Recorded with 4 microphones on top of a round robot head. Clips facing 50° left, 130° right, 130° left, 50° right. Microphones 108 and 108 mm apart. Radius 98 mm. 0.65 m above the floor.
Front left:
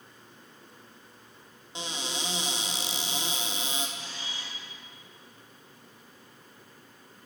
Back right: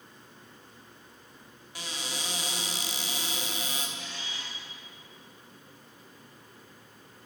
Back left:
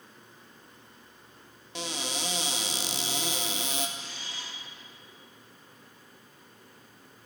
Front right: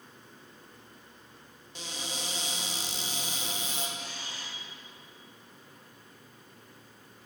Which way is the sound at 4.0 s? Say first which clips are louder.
Even, front right 1 dB; 5° right.